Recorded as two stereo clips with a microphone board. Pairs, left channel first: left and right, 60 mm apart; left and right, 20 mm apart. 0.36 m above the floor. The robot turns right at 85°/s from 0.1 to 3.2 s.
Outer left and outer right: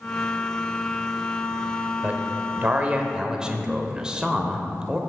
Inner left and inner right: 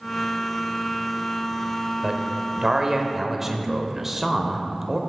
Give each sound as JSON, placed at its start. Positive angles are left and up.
{"t": 2.0, "sound": "a man speaking", "azimuth_deg": -130, "distance_m": 1.0}